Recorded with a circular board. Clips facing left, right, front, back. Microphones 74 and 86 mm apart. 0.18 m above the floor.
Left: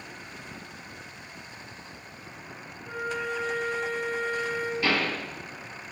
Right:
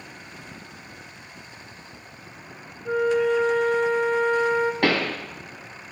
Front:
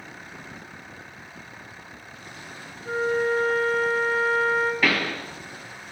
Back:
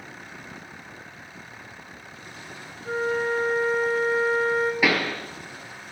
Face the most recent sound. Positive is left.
turn(degrees=-100)